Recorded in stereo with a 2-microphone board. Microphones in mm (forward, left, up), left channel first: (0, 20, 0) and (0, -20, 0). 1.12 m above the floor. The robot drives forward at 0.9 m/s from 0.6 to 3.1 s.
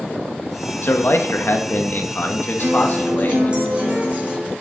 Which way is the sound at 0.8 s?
65° left (ahead or behind).